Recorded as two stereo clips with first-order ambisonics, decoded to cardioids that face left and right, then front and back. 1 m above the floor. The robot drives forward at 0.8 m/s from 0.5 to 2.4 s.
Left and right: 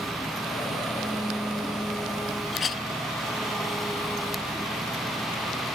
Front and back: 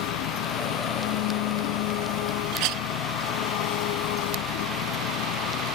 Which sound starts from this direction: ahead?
An engine running, at 0.0 s.